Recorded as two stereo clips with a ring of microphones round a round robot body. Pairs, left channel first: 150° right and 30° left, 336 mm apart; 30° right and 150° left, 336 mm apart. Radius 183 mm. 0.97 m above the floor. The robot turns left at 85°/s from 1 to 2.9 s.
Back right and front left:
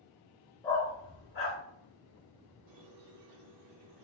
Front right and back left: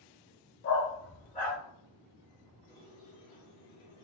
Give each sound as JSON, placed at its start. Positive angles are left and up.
{"t": 0.6, "sound": "a dog barking", "azimuth_deg": -70, "distance_m": 0.9}
{"t": 2.7, "sound": "a squeak", "azimuth_deg": 35, "distance_m": 1.1}